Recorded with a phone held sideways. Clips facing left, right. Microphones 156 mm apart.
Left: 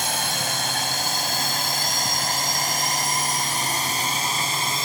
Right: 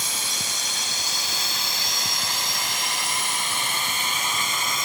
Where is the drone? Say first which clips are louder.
Left 8 dB; 60° left (ahead or behind); by 4.8 s 30° left (ahead or behind).